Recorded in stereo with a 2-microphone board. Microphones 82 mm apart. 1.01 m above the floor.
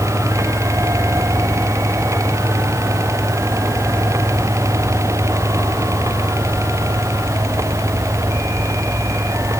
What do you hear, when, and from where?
Only background noise.